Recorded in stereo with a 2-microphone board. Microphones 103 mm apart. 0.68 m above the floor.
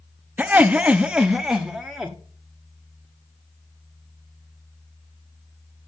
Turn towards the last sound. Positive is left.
turn(degrees=-5)  # may be behind; listen again after turning